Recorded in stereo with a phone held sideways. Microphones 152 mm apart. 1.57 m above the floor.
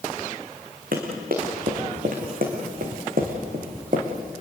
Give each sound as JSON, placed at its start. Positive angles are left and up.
{"t": 0.9, "sound": "running footsteps", "side_deg": -70, "distance_m": 5.5}